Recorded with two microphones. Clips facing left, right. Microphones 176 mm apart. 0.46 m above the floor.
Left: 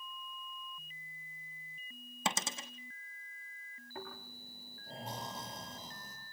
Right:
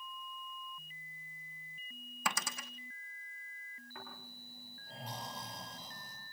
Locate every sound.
2.2 s a dropped coin: 25° left (ahead or behind), 1.2 m
4.0 s snoring: 30° left (ahead or behind), 9.5 m